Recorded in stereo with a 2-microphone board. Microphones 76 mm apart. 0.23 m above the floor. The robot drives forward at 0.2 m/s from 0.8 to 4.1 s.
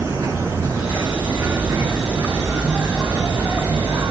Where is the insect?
30° right (ahead or behind), 3 m; by 4.1 s 25° right (ahead or behind), 3.5 m.